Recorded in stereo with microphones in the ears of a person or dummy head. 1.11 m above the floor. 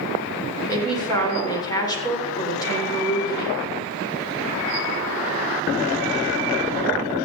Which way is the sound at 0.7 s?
15° left (ahead or behind).